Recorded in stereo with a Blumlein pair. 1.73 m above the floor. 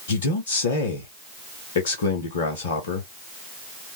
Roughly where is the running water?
I don't hear running water.